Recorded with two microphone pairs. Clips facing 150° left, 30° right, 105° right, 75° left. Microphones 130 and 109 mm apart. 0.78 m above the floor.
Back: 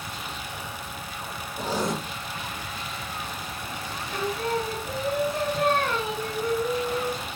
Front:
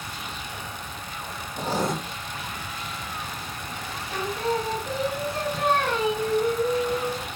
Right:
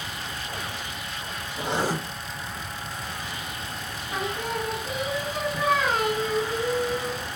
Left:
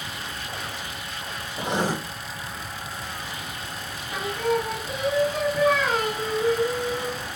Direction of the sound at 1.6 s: Straight ahead.